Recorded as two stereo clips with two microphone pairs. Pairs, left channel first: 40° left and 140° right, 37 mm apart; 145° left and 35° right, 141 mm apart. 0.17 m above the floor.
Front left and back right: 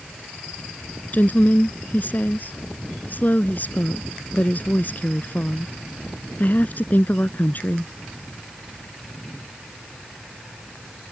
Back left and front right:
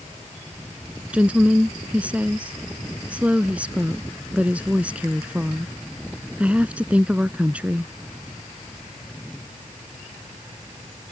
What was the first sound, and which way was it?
A woman speaking, 40° left.